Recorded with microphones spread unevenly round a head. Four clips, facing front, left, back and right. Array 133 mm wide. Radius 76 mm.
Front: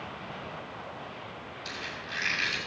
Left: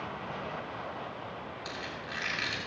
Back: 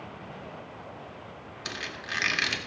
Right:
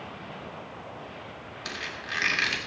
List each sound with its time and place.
1.6 s a squeak: 130° right, 1.8 m